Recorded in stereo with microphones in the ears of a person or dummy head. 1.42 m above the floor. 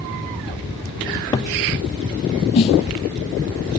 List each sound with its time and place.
1.1 s a cupboard door: 15° left (ahead or behind), 0.7 m
2.5 s a snare drum: 25° left (ahead or behind), 1.0 m